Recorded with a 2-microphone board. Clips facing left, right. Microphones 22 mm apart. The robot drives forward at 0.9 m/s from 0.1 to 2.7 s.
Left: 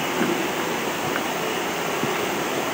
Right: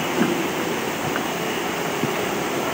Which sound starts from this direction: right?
A whoosh, at 0.1 s.